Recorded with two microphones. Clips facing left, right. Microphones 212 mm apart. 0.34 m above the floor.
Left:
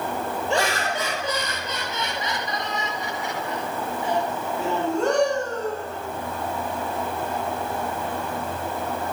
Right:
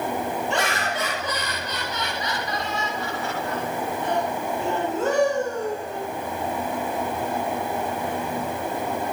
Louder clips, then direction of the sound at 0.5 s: Left 2 dB; 30° left (ahead or behind).